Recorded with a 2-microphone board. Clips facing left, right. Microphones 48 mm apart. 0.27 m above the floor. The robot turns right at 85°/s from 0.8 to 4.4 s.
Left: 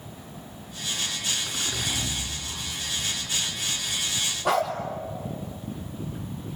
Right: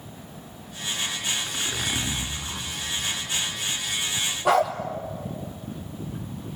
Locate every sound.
1.5 s a zipper: straight behind, 3 m; by 2.7 s 75° right, 3 m
4.5 s a dog barking: centre (ahead or behind), 3.5 m